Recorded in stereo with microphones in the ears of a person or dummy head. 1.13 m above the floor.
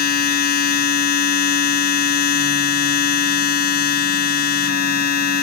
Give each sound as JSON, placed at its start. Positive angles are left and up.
{"t": 0.0, "sound": "a machine running", "side_deg": 55}